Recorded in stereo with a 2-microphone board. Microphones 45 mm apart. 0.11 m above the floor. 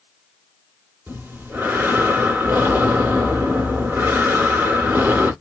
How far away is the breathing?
About 2.5 m.